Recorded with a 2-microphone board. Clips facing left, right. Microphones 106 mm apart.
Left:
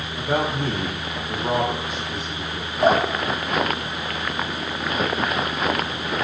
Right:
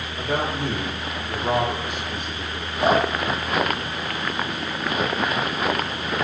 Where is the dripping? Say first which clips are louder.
Left 1 dB; 45° left (ahead or behind), 4.5 m.